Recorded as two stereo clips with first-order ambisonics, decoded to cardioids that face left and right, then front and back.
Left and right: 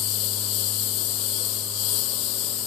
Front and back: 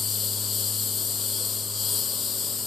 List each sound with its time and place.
0.0 s a lawn mower: 65° left